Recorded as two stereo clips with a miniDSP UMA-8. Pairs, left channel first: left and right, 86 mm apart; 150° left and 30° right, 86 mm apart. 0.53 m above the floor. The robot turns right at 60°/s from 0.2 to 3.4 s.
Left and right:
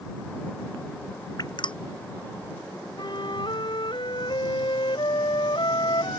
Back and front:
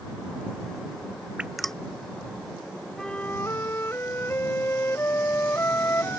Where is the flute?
65° left; by 6.2 s 90° left.